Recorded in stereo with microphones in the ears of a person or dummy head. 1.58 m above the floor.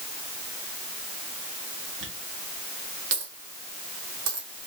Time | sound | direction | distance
2.0 | a dropped coin | 60° right (ahead or behind) | 1.7 m